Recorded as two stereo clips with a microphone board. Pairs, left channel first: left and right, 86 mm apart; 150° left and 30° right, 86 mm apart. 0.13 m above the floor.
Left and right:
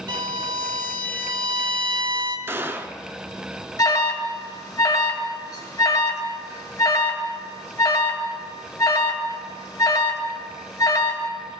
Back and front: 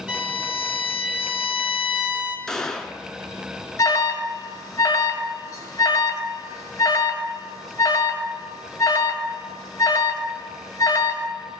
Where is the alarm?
110° left, 1.6 m.